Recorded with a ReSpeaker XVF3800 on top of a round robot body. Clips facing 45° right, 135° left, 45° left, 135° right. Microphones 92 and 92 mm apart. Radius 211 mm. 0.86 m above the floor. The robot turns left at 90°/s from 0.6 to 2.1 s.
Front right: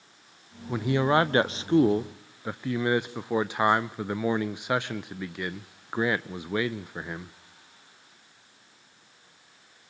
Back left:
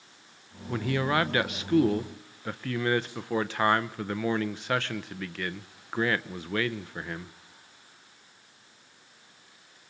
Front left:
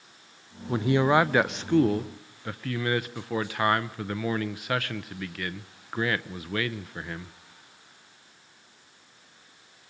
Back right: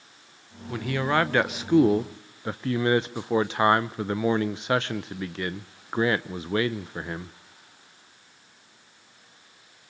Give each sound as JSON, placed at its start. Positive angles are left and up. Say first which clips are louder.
{"t": 0.7, "sound": "a man speaking", "louder": "front right 4 dB, front left 4 dB", "azimuth_deg": 25, "distance_m": 0.8}